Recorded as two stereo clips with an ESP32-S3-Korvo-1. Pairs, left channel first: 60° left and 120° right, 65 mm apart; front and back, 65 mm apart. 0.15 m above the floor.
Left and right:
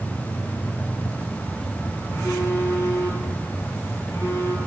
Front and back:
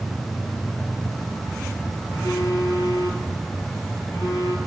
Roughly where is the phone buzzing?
Ahead left.